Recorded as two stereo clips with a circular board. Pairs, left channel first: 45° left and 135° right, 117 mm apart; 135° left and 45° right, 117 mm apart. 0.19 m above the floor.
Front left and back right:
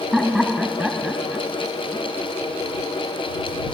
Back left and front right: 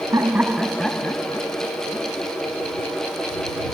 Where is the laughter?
50° right; by 2.3 s 135° left.